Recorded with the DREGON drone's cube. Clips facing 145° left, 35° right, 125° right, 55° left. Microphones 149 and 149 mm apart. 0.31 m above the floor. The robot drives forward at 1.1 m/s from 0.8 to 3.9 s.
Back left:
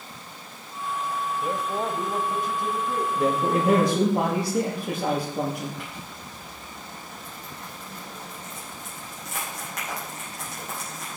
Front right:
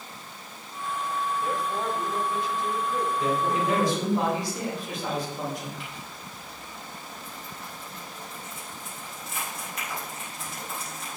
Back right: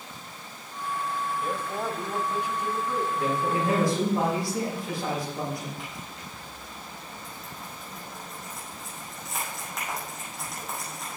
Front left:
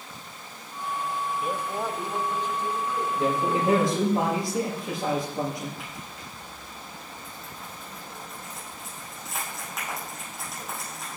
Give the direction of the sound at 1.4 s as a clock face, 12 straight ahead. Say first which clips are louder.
Back left 1 dB, front left 1 dB; 9 o'clock.